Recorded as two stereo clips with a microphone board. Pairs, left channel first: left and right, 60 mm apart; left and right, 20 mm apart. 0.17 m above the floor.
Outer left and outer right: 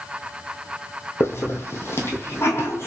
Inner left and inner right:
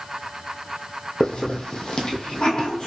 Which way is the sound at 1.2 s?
45° left (ahead or behind).